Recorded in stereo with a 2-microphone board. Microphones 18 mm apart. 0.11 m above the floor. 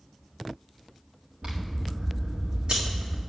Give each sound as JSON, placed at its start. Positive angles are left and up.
{"t": 1.4, "sound": "scissors", "side_deg": -80, "distance_m": 2.5}